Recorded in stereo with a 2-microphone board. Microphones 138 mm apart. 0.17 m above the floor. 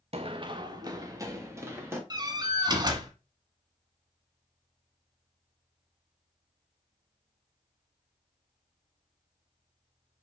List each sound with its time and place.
0.1 s running footsteps: 45° right (ahead or behind), 0.8 m; by 2.0 s 20° right (ahead or behind), 2 m
2.1 s a door slam: 30° right (ahead or behind), 1.4 m